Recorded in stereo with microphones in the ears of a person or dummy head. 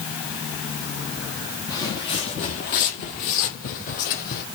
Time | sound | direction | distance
1.7 | footsteps | 15° left (ahead or behind) | 2.0 m